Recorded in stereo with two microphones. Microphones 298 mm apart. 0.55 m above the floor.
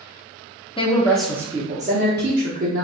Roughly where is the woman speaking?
Centre.